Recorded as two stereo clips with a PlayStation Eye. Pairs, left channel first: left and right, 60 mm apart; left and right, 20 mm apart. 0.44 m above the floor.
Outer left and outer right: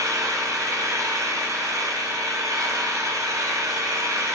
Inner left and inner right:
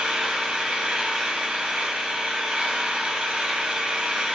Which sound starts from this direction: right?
An engine running, at 0.0 s.